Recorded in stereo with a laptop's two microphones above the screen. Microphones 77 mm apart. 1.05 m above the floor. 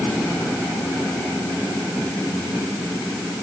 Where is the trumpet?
I don't hear a trumpet.